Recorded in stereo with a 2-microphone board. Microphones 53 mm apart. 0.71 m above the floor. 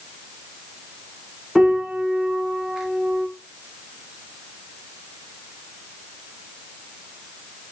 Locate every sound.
1.6 s a piano: 10° right (ahead or behind), 0.5 m